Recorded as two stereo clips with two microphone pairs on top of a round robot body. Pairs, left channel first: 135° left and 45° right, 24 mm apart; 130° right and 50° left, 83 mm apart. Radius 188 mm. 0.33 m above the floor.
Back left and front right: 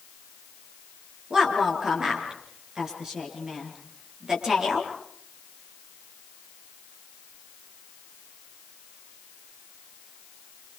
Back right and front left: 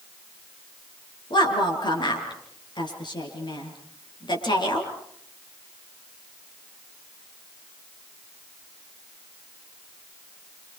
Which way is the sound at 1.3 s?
110° right.